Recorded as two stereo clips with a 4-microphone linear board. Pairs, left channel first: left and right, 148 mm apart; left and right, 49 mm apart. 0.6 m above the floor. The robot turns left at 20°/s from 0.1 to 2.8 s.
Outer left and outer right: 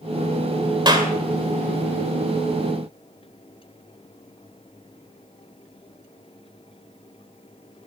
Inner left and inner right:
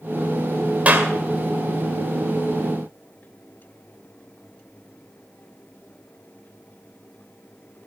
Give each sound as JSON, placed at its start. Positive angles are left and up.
{"t": 0.8, "sound": "a clap", "side_deg": -30, "distance_m": 2.0}